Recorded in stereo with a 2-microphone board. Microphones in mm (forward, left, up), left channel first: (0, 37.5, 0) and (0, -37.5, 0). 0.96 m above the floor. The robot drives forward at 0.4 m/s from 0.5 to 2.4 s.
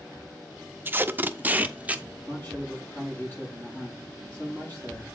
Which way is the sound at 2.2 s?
30° left (ahead or behind).